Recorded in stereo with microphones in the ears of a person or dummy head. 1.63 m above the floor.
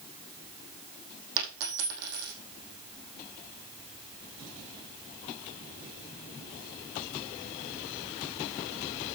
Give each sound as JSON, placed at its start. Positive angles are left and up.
{"t": 1.4, "sound": "a dropped coin", "side_deg": -70, "distance_m": 4.5}